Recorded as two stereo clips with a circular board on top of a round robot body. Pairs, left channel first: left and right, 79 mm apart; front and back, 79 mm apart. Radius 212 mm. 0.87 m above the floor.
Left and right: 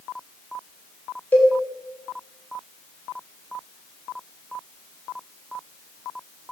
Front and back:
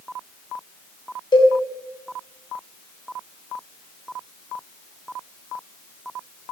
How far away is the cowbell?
About 3.5 m.